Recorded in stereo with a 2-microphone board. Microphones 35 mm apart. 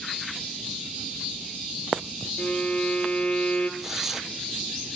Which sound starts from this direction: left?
A violin, at 2.4 s.